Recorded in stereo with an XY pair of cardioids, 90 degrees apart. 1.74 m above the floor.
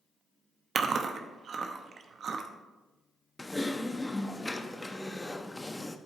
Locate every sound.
0.8 s chewing: 60° right, 0.9 m
3.4 s typing on a keyboard: 15° left, 0.7 m